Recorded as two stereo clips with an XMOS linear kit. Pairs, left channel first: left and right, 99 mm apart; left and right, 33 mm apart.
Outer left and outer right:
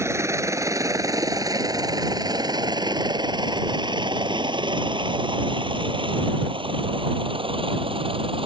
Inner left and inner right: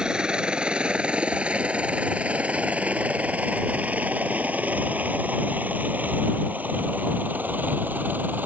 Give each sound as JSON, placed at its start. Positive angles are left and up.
{"t": 0.0, "sound": "a helicopter", "side_deg": -25}